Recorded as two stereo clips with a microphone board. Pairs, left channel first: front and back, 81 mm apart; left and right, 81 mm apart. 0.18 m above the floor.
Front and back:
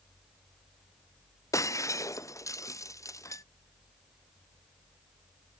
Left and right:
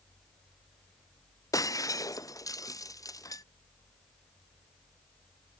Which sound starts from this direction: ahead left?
Breaking glass, at 1.5 s.